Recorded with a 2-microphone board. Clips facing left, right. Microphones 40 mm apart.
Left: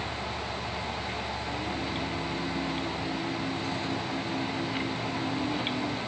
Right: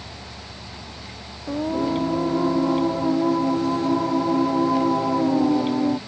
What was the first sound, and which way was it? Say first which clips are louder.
Singing: right 15 dB; 80° right.